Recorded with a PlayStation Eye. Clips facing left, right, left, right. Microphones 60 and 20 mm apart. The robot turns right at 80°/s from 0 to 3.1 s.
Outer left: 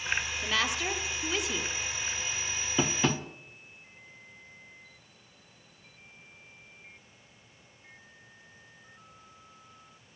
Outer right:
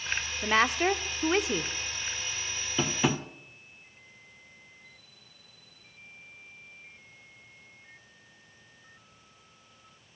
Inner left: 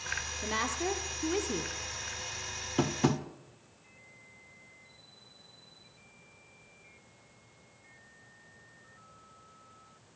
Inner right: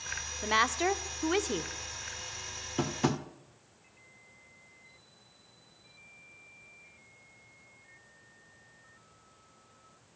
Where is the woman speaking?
140° right, 0.9 m; by 1.7 s 35° right, 0.9 m.